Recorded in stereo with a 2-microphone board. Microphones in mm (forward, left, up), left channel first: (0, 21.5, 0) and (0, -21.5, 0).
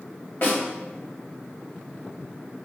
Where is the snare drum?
50° left (ahead or behind), 1.6 m.